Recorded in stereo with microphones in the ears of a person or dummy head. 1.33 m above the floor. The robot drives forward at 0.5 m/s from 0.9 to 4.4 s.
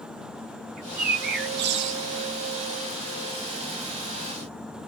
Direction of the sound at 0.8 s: 50° right (ahead or behind).